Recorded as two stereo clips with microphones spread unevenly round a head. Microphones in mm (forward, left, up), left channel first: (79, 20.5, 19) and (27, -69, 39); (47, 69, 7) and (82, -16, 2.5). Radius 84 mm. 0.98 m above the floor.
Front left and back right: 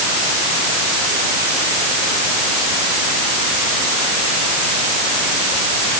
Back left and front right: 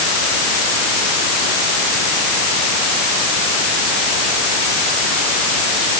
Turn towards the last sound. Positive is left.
No sound to turn to.